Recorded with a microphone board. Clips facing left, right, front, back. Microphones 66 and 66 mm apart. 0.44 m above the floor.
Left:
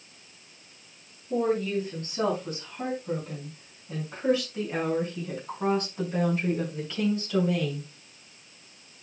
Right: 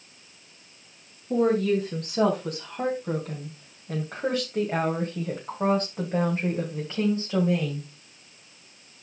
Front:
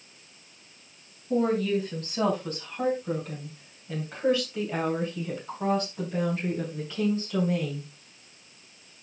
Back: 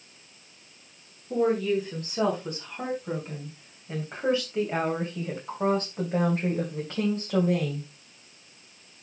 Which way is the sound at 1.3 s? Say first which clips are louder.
Right 4 dB, back 1 dB; 85° right.